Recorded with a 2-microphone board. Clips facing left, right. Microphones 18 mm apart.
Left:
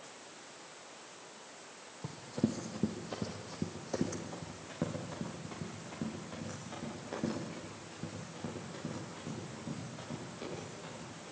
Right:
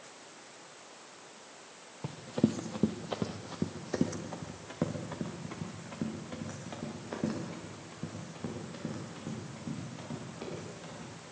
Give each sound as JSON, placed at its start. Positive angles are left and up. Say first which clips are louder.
{"t": 2.0, "sound": "running footsteps", "louder": "right 4 dB", "side_deg": -30, "distance_m": 1.9}